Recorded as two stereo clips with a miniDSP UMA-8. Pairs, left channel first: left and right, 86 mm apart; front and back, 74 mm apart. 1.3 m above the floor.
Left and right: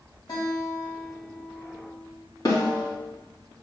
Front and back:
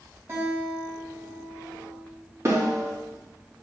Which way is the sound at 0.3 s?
125° left.